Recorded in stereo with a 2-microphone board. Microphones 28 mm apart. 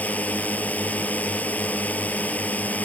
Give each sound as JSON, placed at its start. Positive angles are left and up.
{"t": 0.0, "sound": "a drone", "side_deg": 65}